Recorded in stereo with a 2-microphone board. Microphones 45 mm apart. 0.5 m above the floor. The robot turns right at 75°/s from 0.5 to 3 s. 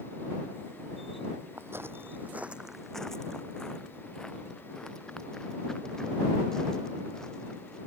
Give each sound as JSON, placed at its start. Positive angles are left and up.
{"t": 1.6, "sound": "footsteps", "side_deg": -55}